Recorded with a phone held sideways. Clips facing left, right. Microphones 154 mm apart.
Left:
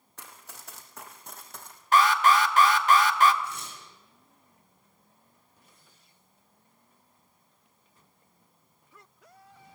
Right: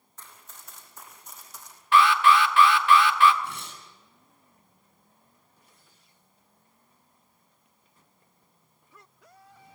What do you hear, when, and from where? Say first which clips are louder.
0.2 s running footsteps: left 3 dB; 75° left (ahead or behind), 3.5 m; by 1.8 s 60° left (ahead or behind), 3 m
1.9 s an alarm: right 2 dB; 40° left (ahead or behind), 1.4 m
3.4 s tearing paper: right 1 dB; 60° right (ahead or behind), 8 m